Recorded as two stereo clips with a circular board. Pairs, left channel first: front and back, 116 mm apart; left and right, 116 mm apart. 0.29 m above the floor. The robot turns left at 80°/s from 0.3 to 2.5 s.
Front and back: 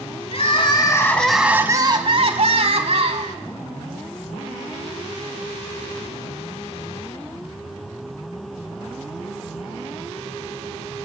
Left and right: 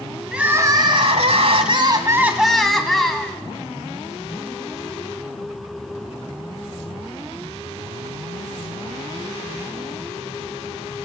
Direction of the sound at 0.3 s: 10° right.